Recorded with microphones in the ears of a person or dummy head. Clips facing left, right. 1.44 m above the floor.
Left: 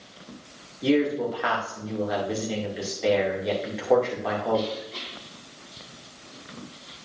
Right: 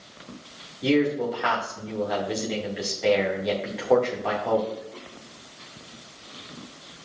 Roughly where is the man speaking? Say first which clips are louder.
Even; centre.